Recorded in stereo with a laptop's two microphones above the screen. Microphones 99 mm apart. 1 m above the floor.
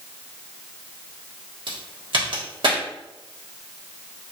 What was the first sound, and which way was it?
A crack, 55° right (ahead or behind).